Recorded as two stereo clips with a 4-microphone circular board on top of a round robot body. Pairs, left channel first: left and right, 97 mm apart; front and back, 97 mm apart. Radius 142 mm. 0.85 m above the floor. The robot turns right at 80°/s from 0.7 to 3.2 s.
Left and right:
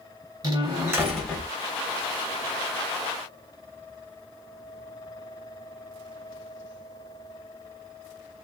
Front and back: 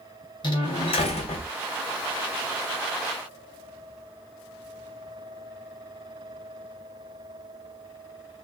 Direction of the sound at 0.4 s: 40° right.